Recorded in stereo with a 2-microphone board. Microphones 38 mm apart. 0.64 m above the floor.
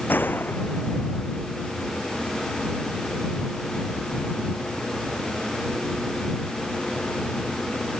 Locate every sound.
0.1 s a gunshot: 55° left (ahead or behind)